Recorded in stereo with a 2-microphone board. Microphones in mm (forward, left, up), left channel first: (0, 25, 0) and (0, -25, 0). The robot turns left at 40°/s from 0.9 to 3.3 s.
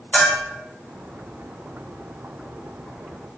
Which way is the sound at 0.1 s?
30° left (ahead or behind).